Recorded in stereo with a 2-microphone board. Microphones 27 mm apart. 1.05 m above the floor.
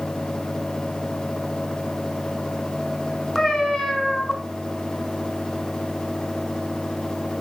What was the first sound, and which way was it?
A cat meowing, 20° left (ahead or behind).